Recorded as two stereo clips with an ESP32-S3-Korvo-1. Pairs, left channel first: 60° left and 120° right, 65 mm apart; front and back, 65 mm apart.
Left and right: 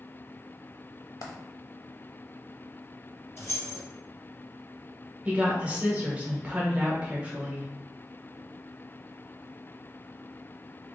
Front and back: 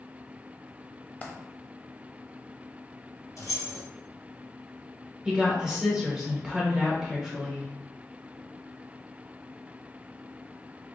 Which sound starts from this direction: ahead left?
A dropped coin, at 1.2 s.